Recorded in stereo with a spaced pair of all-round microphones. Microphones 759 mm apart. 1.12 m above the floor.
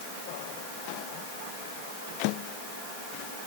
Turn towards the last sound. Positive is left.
No sound to turn to.